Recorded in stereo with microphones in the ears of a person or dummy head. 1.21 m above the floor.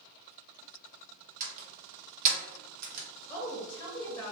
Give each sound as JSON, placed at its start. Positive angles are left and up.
{"t": 1.4, "sound": "a door slam", "side_deg": -50, "distance_m": 0.7}
{"t": 3.3, "sound": "a woman speaking", "side_deg": 15, "distance_m": 0.7}